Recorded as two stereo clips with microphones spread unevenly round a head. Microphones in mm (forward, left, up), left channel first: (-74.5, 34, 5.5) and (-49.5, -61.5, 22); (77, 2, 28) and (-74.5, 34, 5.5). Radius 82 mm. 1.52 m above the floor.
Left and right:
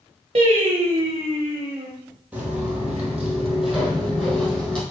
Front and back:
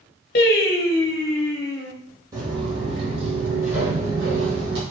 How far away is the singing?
About 0.9 m.